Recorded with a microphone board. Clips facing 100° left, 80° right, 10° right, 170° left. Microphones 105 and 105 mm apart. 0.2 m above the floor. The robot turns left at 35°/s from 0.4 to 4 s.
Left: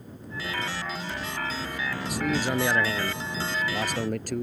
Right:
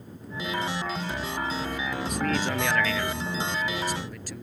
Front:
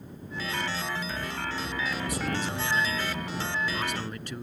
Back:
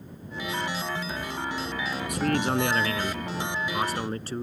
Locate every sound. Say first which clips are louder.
2.1 s a man speaking: left 2 dB, back 6 dB; 175° right; by 4.4 s 120° left